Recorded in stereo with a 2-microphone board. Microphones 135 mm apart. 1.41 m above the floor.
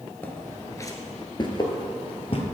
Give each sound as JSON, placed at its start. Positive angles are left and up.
{"t": 0.2, "sound": "footsteps", "side_deg": 15, "distance_m": 1.4}